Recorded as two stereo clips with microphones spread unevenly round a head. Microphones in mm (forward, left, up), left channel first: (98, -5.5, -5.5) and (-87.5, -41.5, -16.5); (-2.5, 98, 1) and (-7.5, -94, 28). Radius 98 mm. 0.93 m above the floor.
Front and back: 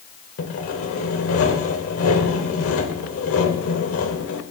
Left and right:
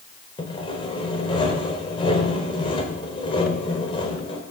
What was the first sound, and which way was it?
Sawing, 20° left.